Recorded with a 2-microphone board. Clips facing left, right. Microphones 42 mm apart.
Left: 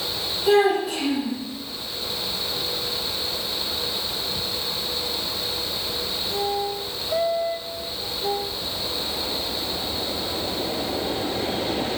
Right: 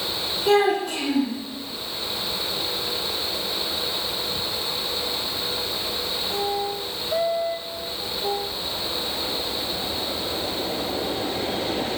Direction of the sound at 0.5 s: 5° left (ahead or behind).